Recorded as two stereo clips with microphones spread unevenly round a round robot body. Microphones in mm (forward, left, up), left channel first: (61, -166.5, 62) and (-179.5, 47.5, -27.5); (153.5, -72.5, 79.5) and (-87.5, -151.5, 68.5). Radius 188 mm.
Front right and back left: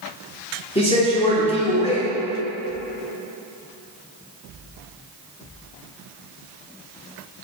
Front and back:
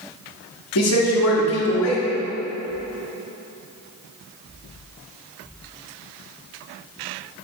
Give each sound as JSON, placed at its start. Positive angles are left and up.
{"t": 0.8, "sound": "a man speaking", "azimuth_deg": 40, "distance_m": 1.7}